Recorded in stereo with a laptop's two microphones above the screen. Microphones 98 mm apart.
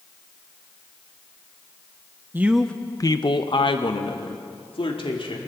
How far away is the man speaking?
About 0.8 m.